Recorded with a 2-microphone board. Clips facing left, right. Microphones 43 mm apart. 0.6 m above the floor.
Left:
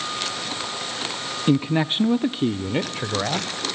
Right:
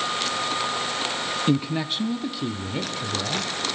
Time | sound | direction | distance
1.5 | a man speaking | 10° left (ahead or behind) | 0.9 m